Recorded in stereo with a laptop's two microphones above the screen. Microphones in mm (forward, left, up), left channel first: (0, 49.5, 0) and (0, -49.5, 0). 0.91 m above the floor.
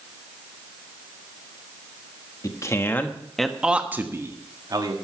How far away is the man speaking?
About 1.6 m.